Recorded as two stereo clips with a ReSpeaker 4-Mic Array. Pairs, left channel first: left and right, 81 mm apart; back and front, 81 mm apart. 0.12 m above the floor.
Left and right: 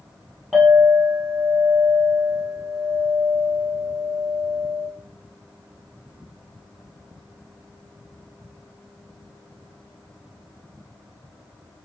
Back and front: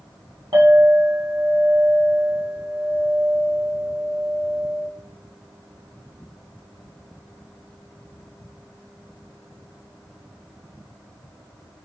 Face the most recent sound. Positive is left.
turn(degrees=0)